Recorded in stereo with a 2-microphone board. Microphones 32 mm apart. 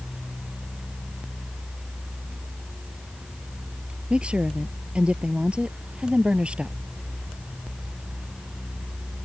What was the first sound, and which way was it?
A woman speaking, 35° right (ahead or behind).